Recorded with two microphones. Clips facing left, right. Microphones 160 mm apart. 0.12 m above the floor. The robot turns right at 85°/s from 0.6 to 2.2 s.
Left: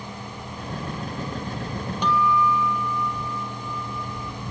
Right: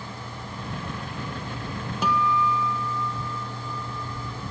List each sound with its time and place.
2.0 s a guitar: 5° right (ahead or behind); by 4.3 s 20° right (ahead or behind)